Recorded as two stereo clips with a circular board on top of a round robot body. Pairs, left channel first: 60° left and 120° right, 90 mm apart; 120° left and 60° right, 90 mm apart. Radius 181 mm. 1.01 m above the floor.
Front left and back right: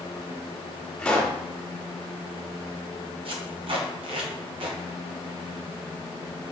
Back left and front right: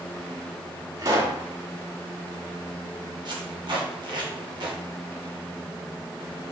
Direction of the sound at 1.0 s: 20° right.